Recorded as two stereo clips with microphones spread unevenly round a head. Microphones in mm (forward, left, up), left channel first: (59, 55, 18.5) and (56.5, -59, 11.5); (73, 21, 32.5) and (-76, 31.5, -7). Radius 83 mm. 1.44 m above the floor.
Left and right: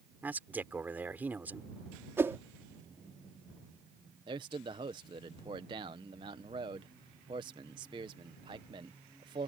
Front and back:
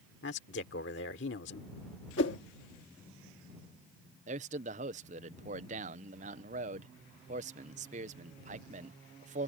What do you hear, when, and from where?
0.2 s a man speaking: 15° right
2.2 s a whoosh: 20° right
4.3 s a man speaking: 150° right